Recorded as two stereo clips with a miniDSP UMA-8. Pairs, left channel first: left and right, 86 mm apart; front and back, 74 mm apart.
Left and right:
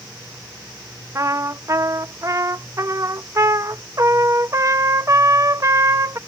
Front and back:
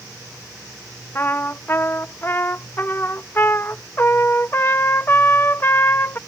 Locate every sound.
1.1 s a trumpet: 50° right